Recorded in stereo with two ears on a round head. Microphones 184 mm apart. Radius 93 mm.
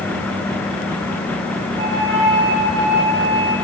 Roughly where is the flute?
Right.